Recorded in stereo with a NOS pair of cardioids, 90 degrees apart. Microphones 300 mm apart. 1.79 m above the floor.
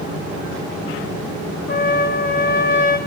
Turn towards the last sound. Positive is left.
turn(degrees=30)